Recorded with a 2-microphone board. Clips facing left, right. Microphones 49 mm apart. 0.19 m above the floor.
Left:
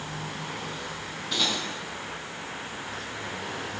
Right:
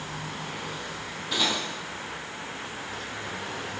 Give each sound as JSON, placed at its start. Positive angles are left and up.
{"t": 1.3, "sound": "cutlery clinking", "side_deg": -5, "distance_m": 3.5}